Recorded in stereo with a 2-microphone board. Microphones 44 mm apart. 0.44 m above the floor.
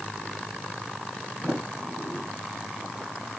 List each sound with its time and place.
1.4 s a sliding door: 40° right (ahead or behind), 4 m